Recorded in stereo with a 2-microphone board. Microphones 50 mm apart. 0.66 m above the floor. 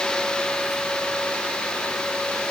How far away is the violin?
No violin in this recording.